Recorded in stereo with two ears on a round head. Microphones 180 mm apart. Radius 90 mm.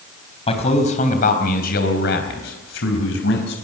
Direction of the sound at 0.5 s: 35° left (ahead or behind).